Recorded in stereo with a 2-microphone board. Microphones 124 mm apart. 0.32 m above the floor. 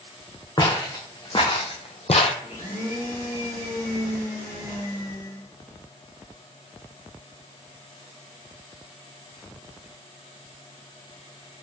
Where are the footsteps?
35° left (ahead or behind), 1.3 m; by 2.3 s 60° left (ahead or behind), 0.5 m.